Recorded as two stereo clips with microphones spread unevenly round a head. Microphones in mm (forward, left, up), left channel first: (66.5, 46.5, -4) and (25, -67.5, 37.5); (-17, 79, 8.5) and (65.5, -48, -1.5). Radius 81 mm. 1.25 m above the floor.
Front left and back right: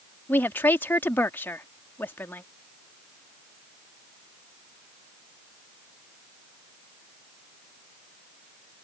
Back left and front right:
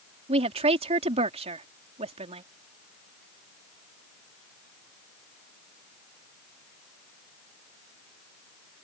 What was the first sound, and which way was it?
A woman speaking, 5° right.